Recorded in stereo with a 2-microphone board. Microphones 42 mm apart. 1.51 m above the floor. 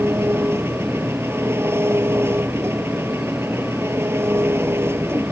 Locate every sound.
0.0 s an engine running: 85° right